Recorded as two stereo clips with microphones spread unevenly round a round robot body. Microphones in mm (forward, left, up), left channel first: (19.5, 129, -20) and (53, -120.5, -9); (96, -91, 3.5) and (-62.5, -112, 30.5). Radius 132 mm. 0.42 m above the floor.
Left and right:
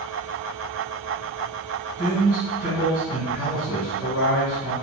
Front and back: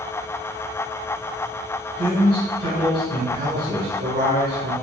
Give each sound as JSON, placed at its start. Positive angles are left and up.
{"t": 2.0, "sound": "a man speaking", "azimuth_deg": -155, "distance_m": 2.0}